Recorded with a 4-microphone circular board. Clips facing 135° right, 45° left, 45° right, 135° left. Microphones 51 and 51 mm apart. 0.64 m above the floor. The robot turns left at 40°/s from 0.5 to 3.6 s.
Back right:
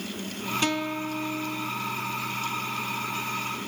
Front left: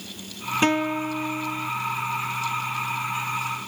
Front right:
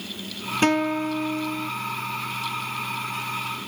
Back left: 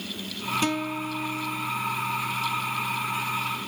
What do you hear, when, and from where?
0.6 s a guitar: 10° right; by 1.7 s 55° right